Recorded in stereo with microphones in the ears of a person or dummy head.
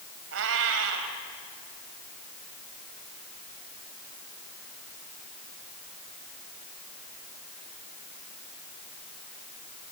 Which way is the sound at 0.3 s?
70° right (ahead or behind).